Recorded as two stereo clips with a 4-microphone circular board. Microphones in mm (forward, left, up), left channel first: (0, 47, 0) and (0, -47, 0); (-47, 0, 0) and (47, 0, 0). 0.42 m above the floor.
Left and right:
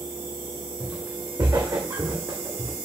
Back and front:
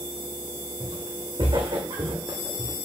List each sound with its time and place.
0.8 s footsteps: 20° right, 2 m; by 2.7 s 40° right, 1.3 m